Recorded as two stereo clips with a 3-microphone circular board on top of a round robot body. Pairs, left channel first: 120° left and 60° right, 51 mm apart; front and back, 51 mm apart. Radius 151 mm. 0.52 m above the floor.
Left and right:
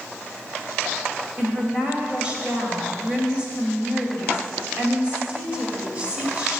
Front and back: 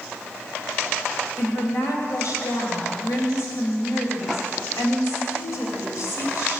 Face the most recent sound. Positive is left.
turn(degrees=5)